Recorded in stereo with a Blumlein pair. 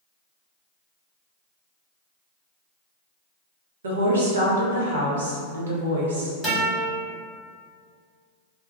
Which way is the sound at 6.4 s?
5° left.